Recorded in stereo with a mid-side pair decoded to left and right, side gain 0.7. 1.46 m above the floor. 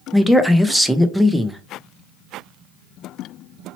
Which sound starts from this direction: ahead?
A man speaking, at 0.1 s.